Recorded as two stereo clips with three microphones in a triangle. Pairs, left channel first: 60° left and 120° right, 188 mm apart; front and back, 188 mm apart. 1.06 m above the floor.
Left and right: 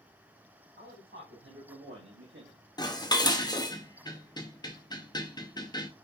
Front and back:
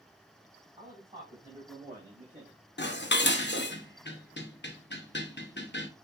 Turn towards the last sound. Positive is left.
turn(degrees=-10)